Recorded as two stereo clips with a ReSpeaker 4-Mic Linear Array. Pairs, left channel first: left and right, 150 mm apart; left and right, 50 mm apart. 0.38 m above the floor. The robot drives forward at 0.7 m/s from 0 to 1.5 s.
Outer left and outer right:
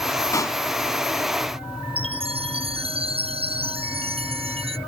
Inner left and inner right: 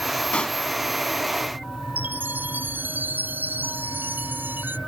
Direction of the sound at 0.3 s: 20° left (ahead or behind).